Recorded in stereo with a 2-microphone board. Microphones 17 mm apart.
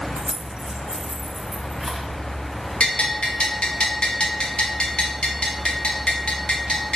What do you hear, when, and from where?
0.2 s keys jangling: 80° right, 0.6 m; by 2.1 s 5° right (ahead or behind), 1.8 m
2.8 s a bell: 75° left (ahead or behind), 1.2 m